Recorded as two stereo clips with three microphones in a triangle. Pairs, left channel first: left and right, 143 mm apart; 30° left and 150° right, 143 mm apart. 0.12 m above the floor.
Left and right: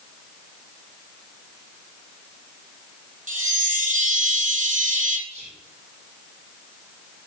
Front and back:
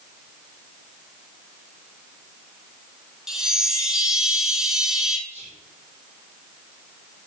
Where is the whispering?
115° right, 5 m.